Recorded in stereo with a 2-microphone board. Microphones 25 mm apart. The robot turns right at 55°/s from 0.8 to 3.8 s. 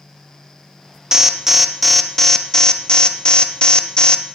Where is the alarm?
40° right, 0.6 m; by 4.2 s 105° left, 0.6 m.